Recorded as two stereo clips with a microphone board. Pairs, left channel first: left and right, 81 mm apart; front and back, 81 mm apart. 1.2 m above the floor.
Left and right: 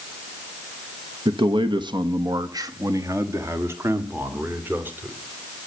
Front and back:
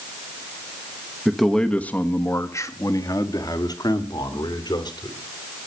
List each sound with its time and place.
1.2 s a man speaking: 95° right, 1.0 m; by 5.2 s 25° right, 3 m